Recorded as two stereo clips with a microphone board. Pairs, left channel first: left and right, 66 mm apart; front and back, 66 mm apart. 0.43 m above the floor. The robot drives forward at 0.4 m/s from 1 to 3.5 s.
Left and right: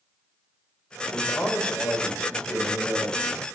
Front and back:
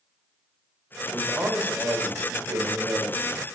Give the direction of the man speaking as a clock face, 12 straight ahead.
8 o'clock.